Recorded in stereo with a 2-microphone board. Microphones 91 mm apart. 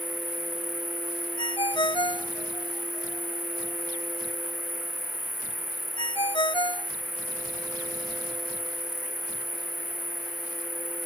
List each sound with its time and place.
0.0 s an insect: 20° left (ahead or behind)
1.4 s a ringtone: 80° left